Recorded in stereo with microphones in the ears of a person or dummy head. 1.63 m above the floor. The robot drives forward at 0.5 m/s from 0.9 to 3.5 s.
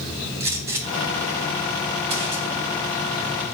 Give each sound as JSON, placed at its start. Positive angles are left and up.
{"t": 0.4, "sound": "a gunshot", "side_deg": -20, "distance_m": 1.6}